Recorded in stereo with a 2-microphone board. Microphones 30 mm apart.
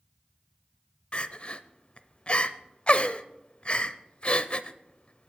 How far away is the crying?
About 0.6 m.